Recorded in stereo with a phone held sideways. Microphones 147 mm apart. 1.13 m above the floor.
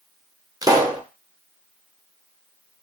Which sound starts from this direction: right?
A pop, at 0.6 s.